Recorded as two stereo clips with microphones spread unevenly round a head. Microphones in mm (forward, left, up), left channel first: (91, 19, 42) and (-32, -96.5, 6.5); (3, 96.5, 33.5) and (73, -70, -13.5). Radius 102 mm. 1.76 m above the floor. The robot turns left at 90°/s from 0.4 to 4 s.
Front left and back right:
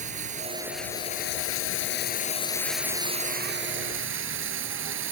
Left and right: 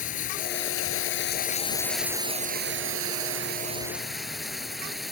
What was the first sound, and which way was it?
Running water, 165° left.